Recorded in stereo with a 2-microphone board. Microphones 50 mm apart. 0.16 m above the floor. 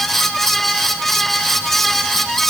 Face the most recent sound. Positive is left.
No sound to turn to.